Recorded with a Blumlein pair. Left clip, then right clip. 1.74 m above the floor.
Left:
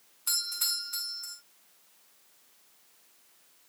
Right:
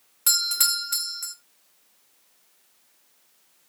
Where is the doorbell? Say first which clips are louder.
Right 8 dB; 45° right, 1.7 m.